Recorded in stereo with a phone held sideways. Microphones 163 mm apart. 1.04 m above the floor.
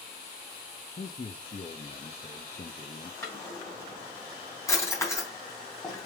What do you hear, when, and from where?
1.0 s a man speaking: 40° left (ahead or behind), 1.0 m
3.2 s a drawer: 15° left (ahead or behind), 3.5 m